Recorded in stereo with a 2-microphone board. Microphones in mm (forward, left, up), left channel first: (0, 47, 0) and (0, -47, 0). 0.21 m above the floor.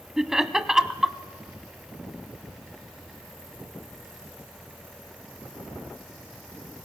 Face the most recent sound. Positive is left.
turn(degrees=-5)  # may be behind; listen again after turning